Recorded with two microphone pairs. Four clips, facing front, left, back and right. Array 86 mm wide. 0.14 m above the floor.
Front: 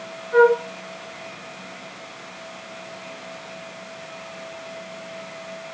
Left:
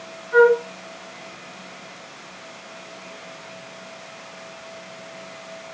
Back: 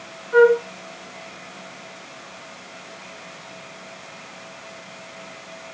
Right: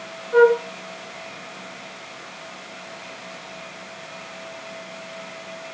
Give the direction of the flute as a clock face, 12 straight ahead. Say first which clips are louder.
Even, back 1 dB; 9 o'clock.